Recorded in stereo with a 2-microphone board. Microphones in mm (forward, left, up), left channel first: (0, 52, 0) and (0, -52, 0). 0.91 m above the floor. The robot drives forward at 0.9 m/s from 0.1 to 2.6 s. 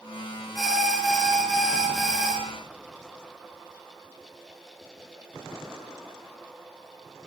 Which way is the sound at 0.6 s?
5° right (ahead or behind).